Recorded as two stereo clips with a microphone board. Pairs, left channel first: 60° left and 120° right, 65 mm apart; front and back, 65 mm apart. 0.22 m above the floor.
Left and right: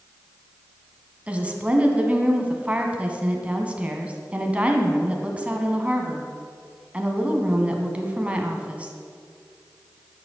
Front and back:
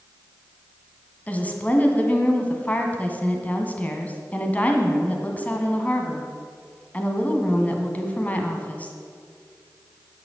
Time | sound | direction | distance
1.3 | a woman speaking | 55° right | 1.9 m